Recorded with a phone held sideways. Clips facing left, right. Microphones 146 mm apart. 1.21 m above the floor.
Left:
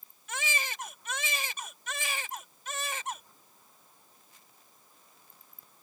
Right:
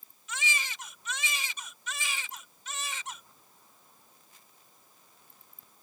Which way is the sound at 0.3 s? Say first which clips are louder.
Left 1 dB; 55° left (ahead or behind).